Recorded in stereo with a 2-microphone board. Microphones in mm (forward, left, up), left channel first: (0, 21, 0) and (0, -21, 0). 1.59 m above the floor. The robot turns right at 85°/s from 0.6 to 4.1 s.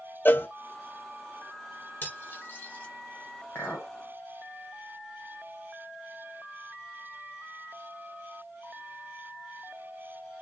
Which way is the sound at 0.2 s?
50° left (ahead or behind).